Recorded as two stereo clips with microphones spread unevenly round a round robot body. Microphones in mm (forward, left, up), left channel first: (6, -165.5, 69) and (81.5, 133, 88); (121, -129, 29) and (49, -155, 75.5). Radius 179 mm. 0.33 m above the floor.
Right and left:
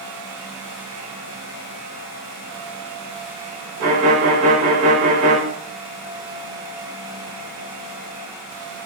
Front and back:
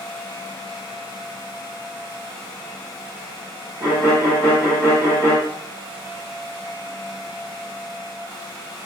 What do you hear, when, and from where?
3.8 s a violin: 115° left, 1.1 m